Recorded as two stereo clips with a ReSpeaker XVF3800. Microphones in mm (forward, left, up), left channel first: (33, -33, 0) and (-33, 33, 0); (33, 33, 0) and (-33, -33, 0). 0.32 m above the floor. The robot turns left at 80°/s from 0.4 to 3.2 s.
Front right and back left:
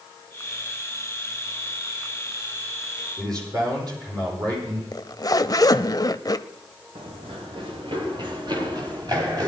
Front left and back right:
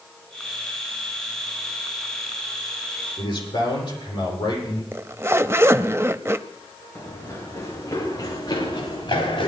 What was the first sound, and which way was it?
A man speaking, 90° left.